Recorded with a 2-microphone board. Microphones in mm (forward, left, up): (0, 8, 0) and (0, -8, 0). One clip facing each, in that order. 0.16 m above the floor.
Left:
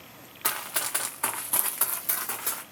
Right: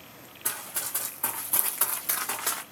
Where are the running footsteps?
75° left (ahead or behind), 0.8 m; by 2.6 s 20° right (ahead or behind), 1.1 m.